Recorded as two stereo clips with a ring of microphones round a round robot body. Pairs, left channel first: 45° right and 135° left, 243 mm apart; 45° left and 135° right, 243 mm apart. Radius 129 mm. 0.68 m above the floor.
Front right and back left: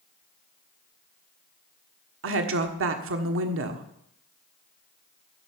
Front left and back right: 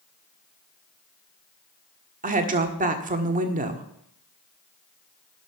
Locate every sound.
2.2 s a woman speaking: 170° left, 1.4 m